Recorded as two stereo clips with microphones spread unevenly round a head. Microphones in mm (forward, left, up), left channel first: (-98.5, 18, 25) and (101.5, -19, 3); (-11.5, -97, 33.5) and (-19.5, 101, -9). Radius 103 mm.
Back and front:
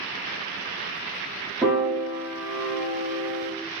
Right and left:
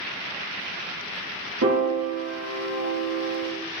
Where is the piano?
75° left, 3 m.